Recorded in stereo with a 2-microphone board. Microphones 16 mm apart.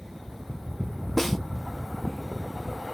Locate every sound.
1.2 s a snare drum: 10° left (ahead or behind), 0.7 m